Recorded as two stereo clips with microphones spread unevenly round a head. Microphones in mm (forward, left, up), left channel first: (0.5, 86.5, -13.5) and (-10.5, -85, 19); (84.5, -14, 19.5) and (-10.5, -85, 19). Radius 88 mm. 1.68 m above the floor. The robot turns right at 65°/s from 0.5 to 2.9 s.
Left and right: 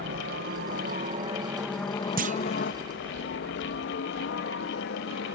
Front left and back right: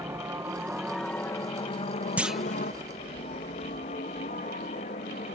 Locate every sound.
0.0 s a helicopter: 80° right; by 5.4 s 70° left
2.2 s a clunk: 65° right; by 2.6 s 40° right